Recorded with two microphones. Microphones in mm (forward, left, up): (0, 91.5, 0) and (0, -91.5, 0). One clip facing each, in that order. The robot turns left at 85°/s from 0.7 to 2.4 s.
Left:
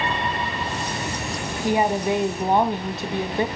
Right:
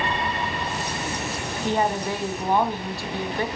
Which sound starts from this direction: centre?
A woman speaking, at 1.6 s.